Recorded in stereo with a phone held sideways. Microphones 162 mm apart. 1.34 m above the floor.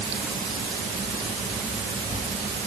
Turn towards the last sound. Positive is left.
No sound to turn to.